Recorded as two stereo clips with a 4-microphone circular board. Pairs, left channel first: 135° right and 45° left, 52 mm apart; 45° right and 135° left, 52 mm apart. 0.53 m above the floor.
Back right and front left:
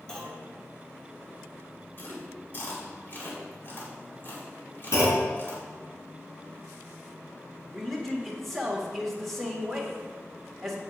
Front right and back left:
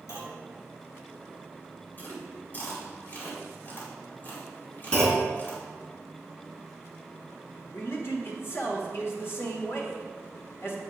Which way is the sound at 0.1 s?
60° right.